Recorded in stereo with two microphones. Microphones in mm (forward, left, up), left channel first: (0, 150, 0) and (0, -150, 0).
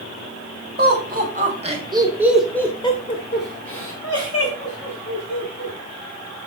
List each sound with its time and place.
0.8 s laughter: 35° right (ahead or behind), 3 m; by 5.7 s 60° left (ahead or behind), 3.5 m